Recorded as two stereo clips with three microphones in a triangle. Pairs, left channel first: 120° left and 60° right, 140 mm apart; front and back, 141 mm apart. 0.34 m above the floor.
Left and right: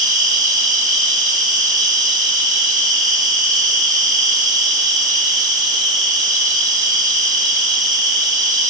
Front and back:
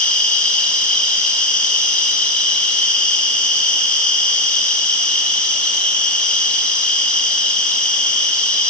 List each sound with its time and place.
0.0 s an insect: 80° right, 8.5 m